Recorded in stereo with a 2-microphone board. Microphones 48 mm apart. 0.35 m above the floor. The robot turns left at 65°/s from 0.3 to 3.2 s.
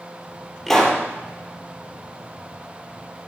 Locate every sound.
0.7 s a pop: centre (ahead or behind), 3.5 m; by 1.0 s 25° left (ahead or behind), 3.5 m